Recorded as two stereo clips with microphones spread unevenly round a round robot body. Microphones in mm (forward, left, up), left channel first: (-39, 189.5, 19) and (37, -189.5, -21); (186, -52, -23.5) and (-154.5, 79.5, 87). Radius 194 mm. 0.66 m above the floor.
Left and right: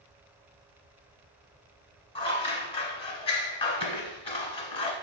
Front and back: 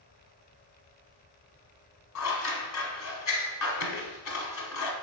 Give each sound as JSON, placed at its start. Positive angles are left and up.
{"t": 2.1, "sound": "scissors", "azimuth_deg": 35, "distance_m": 0.7}